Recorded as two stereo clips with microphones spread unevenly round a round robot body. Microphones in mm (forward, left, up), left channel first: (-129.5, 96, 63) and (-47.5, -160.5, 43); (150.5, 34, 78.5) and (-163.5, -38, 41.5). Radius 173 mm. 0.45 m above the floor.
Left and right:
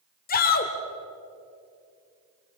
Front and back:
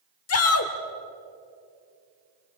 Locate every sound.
0.3 s a shout: 50° left, 1.9 m